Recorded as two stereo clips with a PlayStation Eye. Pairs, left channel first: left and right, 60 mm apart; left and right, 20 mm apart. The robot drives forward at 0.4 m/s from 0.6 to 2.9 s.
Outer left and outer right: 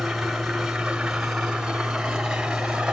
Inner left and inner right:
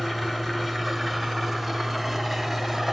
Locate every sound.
0.0 s an engine running: 5° right (ahead or behind), 1.8 m; by 2.9 s 15° right (ahead or behind), 0.9 m